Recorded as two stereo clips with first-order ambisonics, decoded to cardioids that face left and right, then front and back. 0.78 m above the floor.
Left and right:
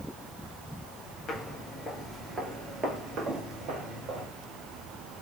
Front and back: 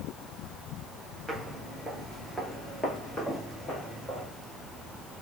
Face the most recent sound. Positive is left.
turn(degrees=-70)